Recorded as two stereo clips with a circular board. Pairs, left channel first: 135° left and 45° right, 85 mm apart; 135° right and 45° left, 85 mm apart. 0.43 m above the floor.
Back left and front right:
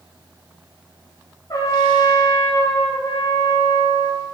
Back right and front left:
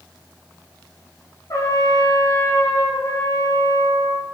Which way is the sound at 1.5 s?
175° left.